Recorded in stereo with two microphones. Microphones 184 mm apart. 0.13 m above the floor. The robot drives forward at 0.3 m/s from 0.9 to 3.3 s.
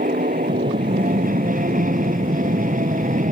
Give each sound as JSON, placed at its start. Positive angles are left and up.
{"t": 0.0, "sound": "an aircraft", "side_deg": -50}